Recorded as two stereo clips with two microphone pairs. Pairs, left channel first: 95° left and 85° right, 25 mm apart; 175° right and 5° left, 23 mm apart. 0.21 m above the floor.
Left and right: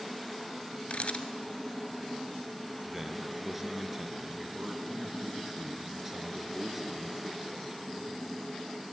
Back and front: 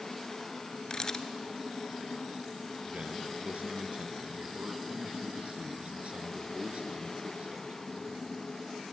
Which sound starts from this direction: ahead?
A man speaking, at 2.9 s.